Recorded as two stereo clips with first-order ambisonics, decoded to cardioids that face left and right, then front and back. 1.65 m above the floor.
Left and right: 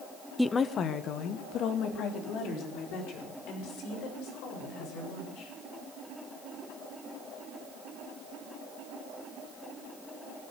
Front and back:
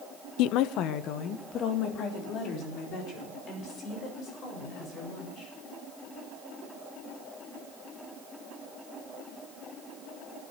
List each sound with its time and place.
0.4 s a woman speaking: straight ahead, 0.6 m; by 5.5 s 55° left, 8.5 m